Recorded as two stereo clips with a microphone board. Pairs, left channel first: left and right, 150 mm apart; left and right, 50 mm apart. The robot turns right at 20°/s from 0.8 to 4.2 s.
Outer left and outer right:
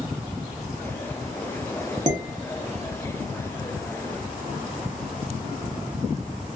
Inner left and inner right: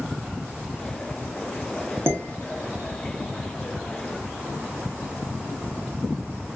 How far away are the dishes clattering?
About 0.8 m.